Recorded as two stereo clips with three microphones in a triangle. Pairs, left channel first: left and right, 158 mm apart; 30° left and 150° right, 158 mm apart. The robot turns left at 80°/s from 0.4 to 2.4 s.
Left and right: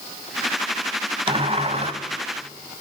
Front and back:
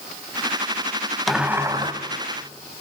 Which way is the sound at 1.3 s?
60° right.